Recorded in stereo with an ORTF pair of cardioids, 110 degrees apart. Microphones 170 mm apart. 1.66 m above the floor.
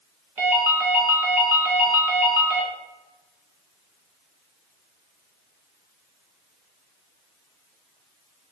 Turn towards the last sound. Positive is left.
turn(degrees=-15)